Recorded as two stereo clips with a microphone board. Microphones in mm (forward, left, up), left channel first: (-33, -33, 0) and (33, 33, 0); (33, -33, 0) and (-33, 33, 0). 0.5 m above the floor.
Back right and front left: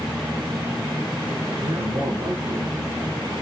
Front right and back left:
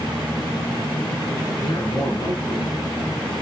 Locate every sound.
1.6 s a man speaking: straight ahead, 6 m